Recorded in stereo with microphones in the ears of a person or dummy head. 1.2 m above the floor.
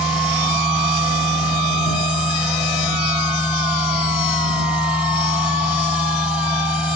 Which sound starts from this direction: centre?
A machine running, at 0.0 s.